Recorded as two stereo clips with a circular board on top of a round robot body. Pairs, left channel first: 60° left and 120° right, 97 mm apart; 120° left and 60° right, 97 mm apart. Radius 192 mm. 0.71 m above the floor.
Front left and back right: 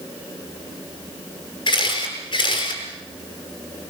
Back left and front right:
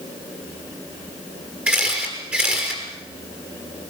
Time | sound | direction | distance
1.7 | a camera shutter | 15° left | 7 m